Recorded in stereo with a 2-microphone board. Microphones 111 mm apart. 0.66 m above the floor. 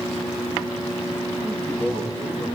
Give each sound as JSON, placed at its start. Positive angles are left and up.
{"t": 1.4, "sound": "a man speaking", "side_deg": 5, "distance_m": 8.5}